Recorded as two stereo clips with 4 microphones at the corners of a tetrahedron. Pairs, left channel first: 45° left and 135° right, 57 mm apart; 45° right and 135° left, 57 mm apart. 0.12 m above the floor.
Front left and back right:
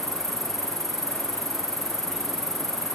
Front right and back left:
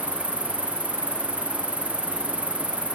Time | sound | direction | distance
0.0 | an insect | 115° right | ?